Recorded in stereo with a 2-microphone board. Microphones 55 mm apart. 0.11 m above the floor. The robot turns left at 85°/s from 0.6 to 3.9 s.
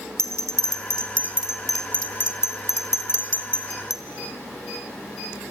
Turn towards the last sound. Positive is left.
turn(degrees=-10)  # may be behind; listen again after turning